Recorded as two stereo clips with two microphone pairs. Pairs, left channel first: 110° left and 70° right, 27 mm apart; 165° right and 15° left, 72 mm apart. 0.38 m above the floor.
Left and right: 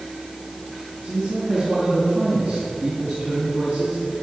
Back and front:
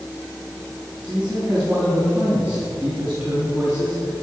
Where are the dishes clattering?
No dishes clattering in this recording.